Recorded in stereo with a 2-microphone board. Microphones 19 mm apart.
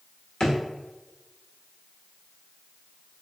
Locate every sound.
0.4 s a drawer: 40° left (ahead or behind), 1.2 m